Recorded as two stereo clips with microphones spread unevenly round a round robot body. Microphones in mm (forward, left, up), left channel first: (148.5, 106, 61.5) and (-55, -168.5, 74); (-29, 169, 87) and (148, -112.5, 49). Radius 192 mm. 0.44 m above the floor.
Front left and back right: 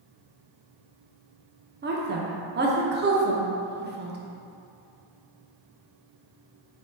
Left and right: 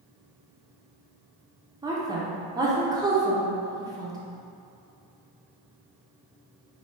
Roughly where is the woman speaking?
Right.